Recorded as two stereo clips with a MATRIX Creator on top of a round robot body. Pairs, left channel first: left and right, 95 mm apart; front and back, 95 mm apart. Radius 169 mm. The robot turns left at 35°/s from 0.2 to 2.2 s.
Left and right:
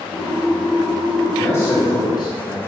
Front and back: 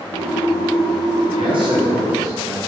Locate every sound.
1.3 s a man speaking: 160° left, 2.5 m; by 2.6 s 130° left, 2.5 m